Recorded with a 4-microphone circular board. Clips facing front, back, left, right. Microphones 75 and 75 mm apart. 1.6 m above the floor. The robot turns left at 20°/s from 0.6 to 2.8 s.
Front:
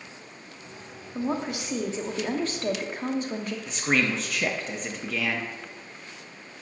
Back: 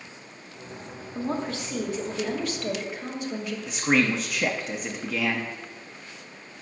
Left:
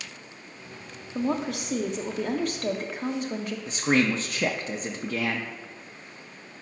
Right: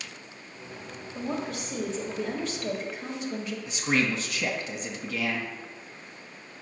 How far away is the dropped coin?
No dropped coin in this recording.